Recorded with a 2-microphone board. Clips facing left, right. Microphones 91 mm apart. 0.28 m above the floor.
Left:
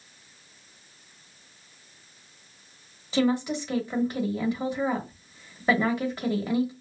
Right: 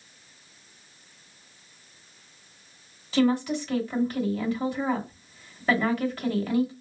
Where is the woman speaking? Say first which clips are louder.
Right 1 dB; 20° left (ahead or behind), 1.0 m.